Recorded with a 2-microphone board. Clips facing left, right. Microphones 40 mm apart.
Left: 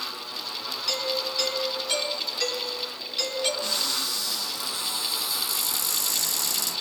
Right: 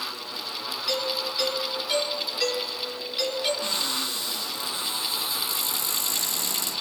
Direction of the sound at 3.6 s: 40° right (ahead or behind).